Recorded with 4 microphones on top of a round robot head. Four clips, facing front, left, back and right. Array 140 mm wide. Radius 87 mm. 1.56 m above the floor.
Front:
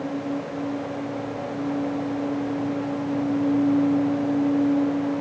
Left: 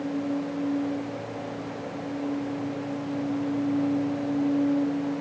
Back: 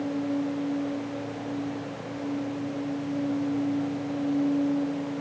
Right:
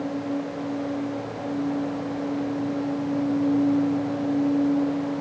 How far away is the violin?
No violin in this recording.